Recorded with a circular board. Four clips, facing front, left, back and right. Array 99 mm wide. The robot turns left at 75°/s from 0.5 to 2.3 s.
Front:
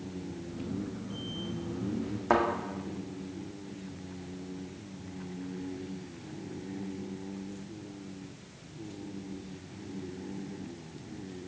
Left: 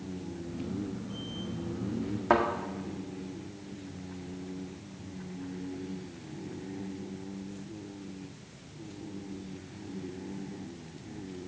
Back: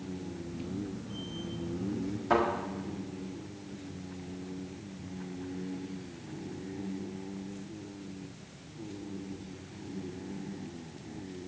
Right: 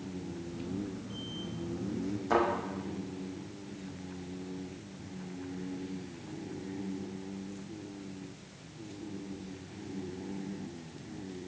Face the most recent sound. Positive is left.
turn(degrees=55)